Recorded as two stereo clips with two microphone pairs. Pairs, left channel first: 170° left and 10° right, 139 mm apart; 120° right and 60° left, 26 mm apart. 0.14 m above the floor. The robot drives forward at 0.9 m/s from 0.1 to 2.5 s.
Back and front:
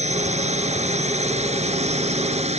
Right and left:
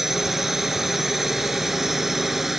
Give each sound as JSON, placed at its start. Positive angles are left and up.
{"t": 0.0, "sound": "a drone", "azimuth_deg": -20}